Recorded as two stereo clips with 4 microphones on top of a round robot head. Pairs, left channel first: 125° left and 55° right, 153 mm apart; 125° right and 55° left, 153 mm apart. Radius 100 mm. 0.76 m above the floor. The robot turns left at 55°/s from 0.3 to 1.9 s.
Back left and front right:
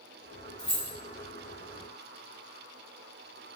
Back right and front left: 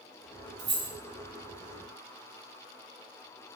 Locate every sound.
0.6 s keys jangling: 55° left, 1.0 m; by 0.9 s 40° left, 1.0 m